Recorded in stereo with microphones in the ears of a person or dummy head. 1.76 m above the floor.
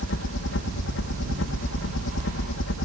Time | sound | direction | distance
0.0 | a helicopter | 65° left (ahead or behind) | ?